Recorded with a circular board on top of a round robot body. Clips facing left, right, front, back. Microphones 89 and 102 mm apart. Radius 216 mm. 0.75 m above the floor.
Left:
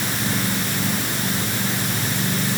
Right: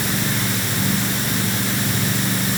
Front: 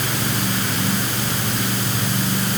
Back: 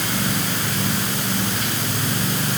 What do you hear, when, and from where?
Only background noise.